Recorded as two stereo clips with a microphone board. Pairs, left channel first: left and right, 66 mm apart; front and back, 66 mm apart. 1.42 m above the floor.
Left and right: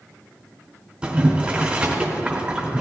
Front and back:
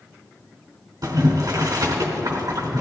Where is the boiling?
165° right, 2.5 m.